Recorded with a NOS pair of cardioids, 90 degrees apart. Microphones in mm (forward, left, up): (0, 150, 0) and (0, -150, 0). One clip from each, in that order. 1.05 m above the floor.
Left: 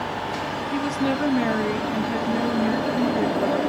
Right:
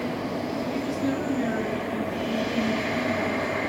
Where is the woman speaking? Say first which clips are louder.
Left 6 dB; 55° left, 2 m.